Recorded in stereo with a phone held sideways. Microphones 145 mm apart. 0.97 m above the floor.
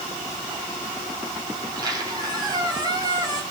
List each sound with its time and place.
1.6 s a squeak: 30° right (ahead or behind), 3 m